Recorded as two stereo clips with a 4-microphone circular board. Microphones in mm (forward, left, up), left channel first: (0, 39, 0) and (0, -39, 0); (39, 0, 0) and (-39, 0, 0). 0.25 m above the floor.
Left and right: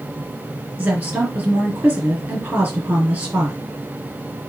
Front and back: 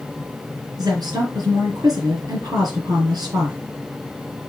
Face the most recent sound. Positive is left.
turn(degrees=-155)